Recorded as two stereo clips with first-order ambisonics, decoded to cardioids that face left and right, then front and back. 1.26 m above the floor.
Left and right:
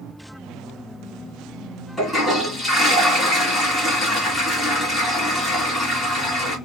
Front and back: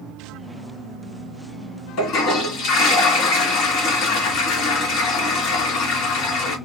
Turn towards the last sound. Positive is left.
turn(degrees=10)